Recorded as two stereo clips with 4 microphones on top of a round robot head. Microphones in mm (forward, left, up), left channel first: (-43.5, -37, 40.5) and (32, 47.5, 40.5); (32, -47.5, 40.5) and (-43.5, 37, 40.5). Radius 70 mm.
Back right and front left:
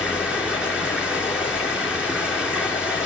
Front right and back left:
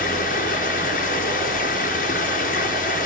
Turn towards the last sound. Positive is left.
turn(degrees=-35)